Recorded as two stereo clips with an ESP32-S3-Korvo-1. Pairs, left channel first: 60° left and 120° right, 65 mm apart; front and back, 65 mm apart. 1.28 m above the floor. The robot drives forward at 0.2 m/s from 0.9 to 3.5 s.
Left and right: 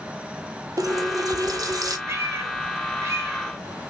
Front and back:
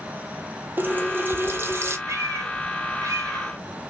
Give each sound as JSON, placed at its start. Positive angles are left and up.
{"t": 0.8, "sound": "a running tap", "azimuth_deg": -120, "distance_m": 0.9}
{"t": 2.1, "sound": "a cat meowing", "azimuth_deg": -155, "distance_m": 0.9}